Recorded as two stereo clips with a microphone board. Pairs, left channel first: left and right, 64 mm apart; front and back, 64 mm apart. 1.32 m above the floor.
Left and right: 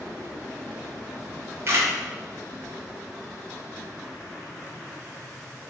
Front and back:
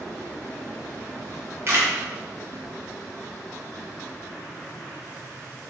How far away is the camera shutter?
About 2.5 m.